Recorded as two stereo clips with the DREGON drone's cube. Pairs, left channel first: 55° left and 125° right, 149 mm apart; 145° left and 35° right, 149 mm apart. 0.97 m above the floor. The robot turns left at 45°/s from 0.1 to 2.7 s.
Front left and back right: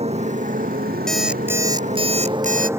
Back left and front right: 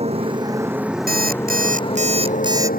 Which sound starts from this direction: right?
A motorcycle, at 0.0 s.